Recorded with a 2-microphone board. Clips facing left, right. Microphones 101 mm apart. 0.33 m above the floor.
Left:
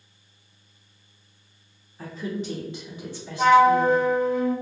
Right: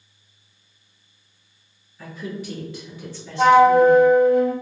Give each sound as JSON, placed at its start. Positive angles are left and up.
{"t": 2.0, "sound": "a woman speaking", "side_deg": 30, "distance_m": 2.0}
{"t": 3.4, "sound": "a flute", "side_deg": -60, "distance_m": 0.7}